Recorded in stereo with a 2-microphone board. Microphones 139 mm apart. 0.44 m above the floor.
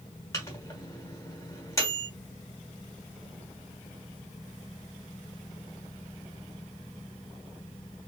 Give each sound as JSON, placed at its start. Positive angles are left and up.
{"t": 0.3, "sound": "a microwave", "side_deg": 25, "distance_m": 1.4}